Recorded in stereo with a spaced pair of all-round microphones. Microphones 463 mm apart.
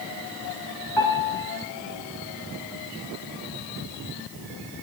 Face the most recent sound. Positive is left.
turn(degrees=65)  # may be behind; listen again after turning